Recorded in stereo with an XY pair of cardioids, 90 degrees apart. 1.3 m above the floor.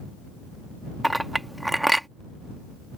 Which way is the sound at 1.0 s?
10° right.